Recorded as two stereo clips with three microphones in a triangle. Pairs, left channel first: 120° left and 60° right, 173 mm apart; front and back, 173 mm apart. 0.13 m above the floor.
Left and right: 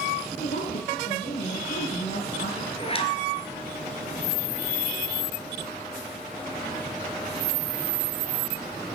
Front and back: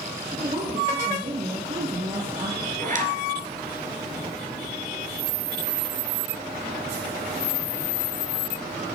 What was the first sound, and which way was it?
A woman speaking, 145° left.